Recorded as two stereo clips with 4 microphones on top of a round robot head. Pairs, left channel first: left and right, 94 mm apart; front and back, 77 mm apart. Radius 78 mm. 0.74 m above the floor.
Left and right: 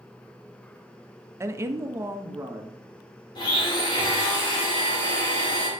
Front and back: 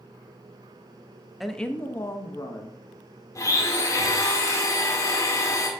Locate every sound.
1.4 s a woman speaking: 90° right, 0.8 m; by 2.8 s 25° right, 1.3 m
3.4 s a blender: 45° left, 2 m